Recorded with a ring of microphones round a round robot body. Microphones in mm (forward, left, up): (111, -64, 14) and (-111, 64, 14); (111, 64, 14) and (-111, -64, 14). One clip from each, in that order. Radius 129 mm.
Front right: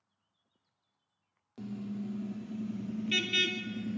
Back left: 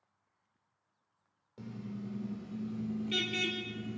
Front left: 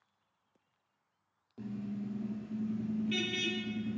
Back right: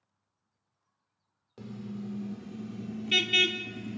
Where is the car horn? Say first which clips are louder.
Front right 4 dB, even; 90° right, 4 m.